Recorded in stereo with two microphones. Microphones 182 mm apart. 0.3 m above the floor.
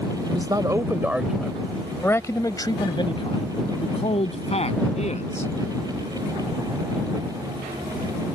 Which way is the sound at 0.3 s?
25° right (ahead or behind).